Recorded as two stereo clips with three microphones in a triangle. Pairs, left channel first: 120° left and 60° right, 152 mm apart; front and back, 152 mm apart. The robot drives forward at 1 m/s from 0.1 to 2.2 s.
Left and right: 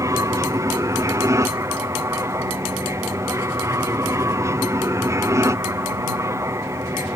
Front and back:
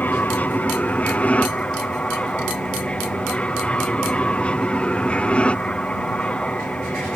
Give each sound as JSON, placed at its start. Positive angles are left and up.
{"t": 0.0, "sound": "an aircraft", "azimuth_deg": -55}